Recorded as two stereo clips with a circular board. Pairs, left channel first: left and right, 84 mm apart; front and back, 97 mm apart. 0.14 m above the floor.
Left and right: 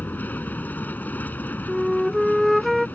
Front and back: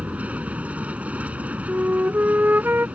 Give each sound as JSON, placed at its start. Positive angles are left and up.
{"t": 0.0, "sound": "an aircraft", "azimuth_deg": 125}
{"t": 1.7, "sound": "a flute", "azimuth_deg": 180}